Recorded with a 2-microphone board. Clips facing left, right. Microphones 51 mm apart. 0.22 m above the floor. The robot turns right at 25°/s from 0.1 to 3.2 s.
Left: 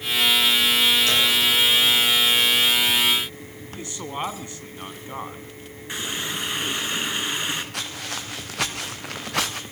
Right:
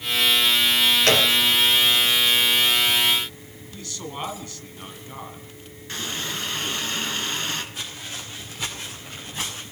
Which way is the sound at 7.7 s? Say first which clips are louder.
Left 3 dB; 70° left (ahead or behind).